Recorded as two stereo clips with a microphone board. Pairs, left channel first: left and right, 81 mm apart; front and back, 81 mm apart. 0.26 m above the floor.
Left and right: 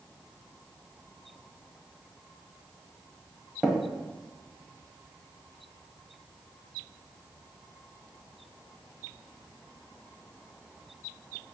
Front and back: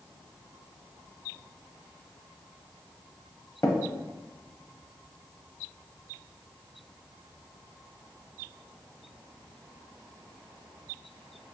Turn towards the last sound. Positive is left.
turn(degrees=-10)